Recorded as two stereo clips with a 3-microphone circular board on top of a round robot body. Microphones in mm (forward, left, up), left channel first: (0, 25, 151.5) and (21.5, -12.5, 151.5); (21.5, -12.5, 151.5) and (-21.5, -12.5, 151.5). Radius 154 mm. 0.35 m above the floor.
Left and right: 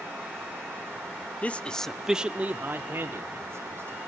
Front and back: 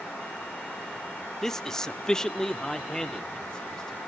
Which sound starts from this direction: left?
A man speaking, at 1.4 s.